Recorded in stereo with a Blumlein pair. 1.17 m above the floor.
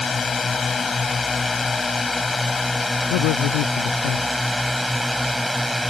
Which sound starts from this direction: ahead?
A drone, at 0.0 s.